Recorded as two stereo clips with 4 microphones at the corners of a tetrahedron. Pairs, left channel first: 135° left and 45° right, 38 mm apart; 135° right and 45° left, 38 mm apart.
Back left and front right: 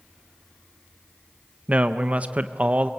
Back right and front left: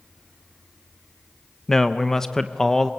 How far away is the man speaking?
About 0.6 m.